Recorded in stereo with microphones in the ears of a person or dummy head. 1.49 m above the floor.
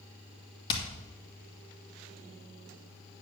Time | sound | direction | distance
0.7 | hammering | 25° left (ahead or behind) | 1.8 m